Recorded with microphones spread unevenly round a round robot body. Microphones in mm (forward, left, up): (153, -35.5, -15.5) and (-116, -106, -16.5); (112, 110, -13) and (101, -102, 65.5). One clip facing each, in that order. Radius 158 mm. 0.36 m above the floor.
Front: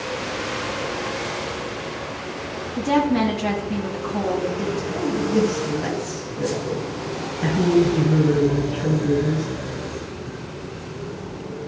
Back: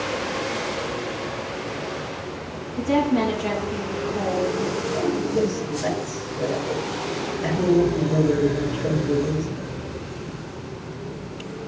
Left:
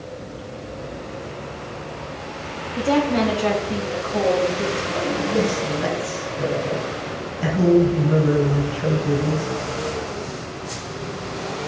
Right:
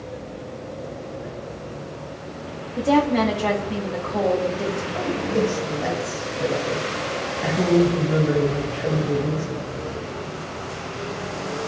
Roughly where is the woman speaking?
Ahead.